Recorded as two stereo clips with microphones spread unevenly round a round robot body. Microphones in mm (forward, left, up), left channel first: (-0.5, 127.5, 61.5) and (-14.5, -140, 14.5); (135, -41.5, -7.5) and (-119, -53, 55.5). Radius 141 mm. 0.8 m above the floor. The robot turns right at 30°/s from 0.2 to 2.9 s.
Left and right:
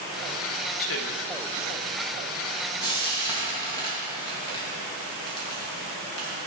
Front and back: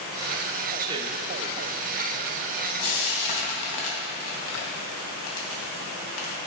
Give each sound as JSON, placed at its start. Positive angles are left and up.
{"t": 0.8, "sound": "a man speaking", "azimuth_deg": 95, "distance_m": 1.0}
{"t": 2.8, "sound": "frying", "azimuth_deg": 10, "distance_m": 2.5}